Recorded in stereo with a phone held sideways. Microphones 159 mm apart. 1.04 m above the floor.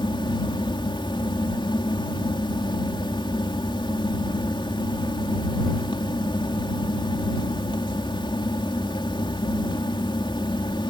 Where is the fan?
30° left (ahead or behind).